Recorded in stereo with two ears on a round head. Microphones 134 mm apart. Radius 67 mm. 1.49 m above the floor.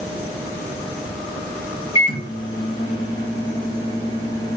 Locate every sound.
1.9 s a microwave: 30° left (ahead or behind), 1.9 m